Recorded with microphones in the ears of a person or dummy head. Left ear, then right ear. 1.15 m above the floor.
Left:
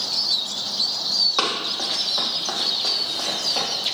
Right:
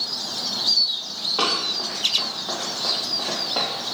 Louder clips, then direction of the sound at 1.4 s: Even; 55° left (ahead or behind).